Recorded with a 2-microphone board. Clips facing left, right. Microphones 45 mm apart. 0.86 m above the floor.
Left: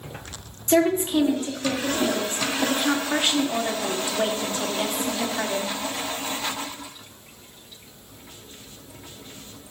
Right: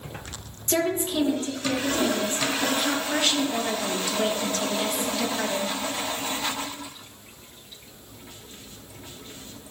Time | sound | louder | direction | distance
0.7 | a woman speaking | left 5 dB | 30° left (ahead or behind) | 1.6 m